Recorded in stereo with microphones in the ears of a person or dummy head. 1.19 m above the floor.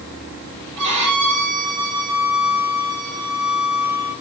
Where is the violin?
65° right (ahead or behind), 6.5 m.